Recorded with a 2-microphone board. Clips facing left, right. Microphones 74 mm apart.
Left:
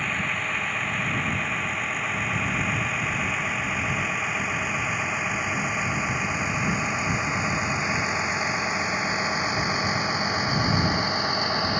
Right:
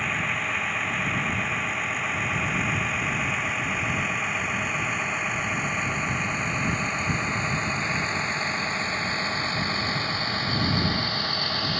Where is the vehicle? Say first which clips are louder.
Even; centre (ahead or behind); by 11.8 s 20° left (ahead or behind).